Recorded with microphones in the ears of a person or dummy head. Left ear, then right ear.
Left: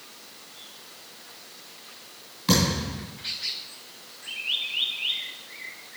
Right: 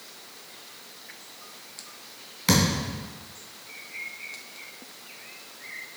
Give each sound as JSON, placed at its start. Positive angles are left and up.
{"t": 2.5, "sound": "a thud", "side_deg": -25, "distance_m": 2.5}